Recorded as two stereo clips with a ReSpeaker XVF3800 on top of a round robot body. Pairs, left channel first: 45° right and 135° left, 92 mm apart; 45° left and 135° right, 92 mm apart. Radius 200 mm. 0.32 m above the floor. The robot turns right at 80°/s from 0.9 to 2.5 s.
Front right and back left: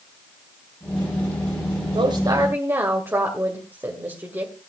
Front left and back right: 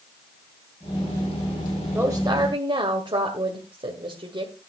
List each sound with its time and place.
1.9 s a woman speaking: 155° left, 2.5 m; by 4.5 s 160° right, 2.5 m